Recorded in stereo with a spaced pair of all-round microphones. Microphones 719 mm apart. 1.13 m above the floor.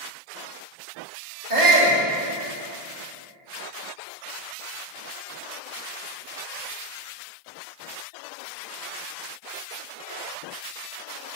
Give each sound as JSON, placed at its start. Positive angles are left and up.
{"t": 1.5, "sound": "a shout", "side_deg": -85, "distance_m": 2.5}